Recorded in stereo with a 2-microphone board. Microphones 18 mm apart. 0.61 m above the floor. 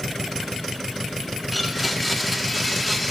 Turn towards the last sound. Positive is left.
turn(degrees=0)  # may be behind; listen again after turning